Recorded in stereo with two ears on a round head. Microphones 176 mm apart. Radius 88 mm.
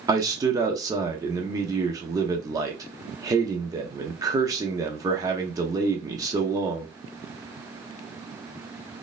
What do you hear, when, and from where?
0.1 s a man speaking: 15° right (ahead or behind), 0.7 m